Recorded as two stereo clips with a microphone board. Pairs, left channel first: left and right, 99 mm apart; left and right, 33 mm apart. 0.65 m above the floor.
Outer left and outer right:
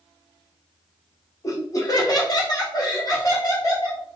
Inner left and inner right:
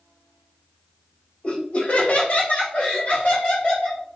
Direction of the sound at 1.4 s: 35° left (ahead or behind).